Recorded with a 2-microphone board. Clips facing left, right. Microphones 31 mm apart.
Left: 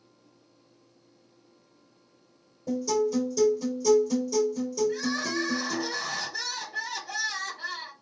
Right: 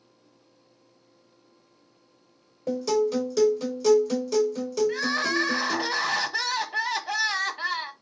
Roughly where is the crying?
Right.